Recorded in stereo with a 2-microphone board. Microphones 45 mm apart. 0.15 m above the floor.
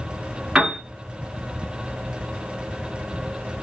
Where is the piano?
20° right (ahead or behind), 1.3 m.